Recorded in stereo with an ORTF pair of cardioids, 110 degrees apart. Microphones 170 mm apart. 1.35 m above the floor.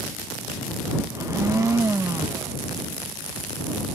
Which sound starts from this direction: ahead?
A blender, at 1.1 s.